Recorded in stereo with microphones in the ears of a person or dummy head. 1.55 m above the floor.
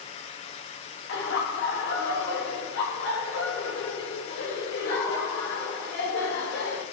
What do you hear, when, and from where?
1.1 s laughter: 70° left (ahead or behind), 8.5 m